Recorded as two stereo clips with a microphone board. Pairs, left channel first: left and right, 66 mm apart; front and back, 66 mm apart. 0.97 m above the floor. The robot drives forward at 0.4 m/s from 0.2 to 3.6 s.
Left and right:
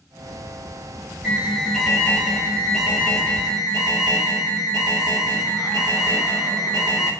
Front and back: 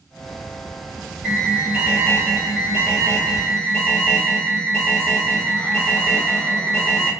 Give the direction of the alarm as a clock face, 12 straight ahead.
6 o'clock.